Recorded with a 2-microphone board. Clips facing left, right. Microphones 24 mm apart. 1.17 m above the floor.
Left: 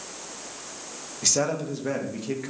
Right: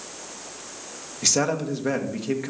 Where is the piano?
No piano in this recording.